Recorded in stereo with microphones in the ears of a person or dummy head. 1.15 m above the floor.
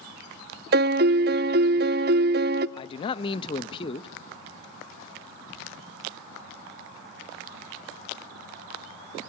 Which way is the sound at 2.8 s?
30° left (ahead or behind).